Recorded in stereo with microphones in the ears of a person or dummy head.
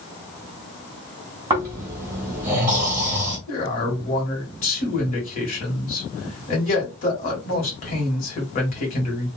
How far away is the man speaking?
About 1.6 m.